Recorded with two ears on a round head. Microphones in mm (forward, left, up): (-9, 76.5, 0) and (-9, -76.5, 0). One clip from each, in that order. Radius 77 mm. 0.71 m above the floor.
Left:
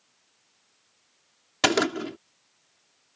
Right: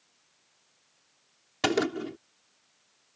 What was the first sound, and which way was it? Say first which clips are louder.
A gunshot: left 4 dB; 40° left (ahead or behind).